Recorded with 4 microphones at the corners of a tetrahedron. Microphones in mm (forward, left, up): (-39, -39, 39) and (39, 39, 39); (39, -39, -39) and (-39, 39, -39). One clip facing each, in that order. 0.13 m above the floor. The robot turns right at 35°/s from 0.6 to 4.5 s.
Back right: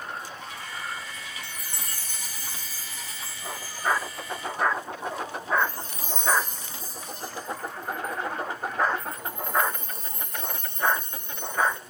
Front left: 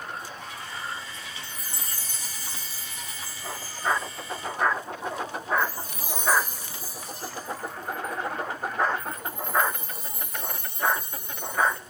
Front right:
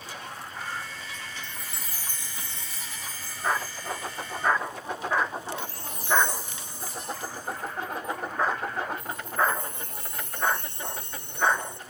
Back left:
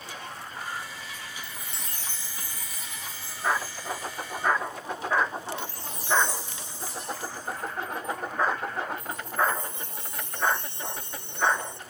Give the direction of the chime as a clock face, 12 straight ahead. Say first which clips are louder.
Even, even; 5 o'clock.